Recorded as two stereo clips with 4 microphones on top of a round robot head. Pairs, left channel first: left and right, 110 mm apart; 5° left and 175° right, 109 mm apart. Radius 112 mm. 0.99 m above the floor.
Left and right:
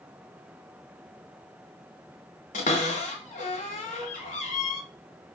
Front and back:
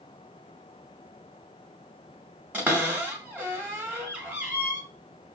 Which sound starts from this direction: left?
A cupboard door, at 2.5 s.